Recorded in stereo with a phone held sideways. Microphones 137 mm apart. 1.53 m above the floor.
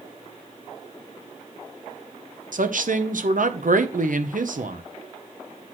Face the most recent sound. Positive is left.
turn(degrees=-75)  # may be behind; listen again after turning